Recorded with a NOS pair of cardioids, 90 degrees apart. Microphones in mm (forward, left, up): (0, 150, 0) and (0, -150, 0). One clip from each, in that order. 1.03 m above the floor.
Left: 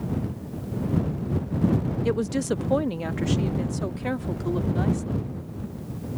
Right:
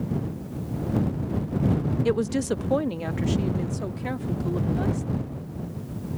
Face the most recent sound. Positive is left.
turn(degrees=25)